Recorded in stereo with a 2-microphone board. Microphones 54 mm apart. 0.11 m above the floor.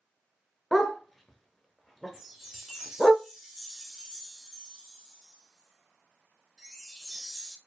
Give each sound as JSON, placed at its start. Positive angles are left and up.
{"t": 0.7, "sound": "a dog barking", "side_deg": 5, "distance_m": 0.7}
{"t": 2.1, "sound": "a chime", "side_deg": -5, "distance_m": 1.2}